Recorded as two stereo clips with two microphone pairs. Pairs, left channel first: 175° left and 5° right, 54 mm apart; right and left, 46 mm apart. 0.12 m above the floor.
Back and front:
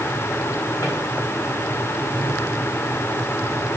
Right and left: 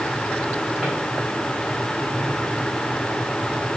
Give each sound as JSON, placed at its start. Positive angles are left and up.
{"t": 0.8, "sound": "a drawer", "azimuth_deg": 160, "distance_m": 7.0}